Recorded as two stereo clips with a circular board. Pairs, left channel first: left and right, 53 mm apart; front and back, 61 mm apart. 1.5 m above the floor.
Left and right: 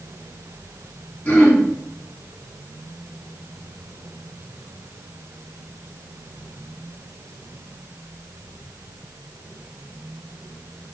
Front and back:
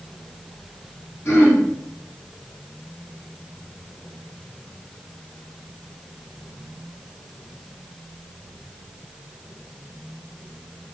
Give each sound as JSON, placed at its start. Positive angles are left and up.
{"t": 1.2, "sound": "throat clearing", "azimuth_deg": 40, "distance_m": 2.5}